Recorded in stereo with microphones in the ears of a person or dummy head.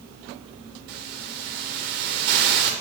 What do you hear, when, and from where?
0.9 s a hiss: 50° right (ahead or behind), 1.6 m